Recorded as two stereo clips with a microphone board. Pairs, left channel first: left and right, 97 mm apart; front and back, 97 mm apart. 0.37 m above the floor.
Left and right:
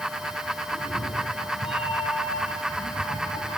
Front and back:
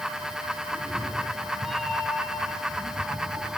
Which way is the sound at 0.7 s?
80° left.